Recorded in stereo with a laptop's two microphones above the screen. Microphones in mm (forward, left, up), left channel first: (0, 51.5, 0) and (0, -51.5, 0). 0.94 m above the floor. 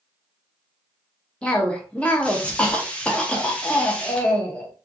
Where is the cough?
10° left (ahead or behind), 0.6 m.